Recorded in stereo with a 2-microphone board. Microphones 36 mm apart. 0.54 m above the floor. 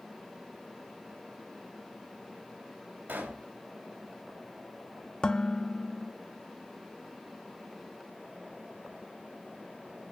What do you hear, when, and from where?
3.1 s a pop: 70° right (ahead or behind), 3 m
5.2 s dishes clattering: 25° left (ahead or behind), 0.5 m